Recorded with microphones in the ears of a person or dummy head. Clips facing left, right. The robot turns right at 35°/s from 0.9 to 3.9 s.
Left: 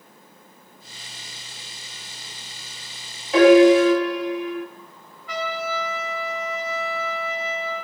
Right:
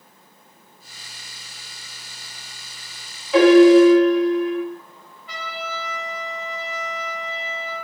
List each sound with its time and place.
3.3 s a piano: 10° left (ahead or behind), 1.2 m; by 4.6 s 10° right (ahead or behind), 1.2 m
5.3 s a trumpet: 25° right (ahead or behind), 1.1 m